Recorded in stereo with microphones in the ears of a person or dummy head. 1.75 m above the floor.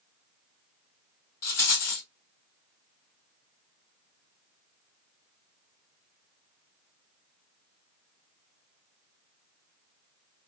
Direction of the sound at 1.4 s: 50° left (ahead or behind).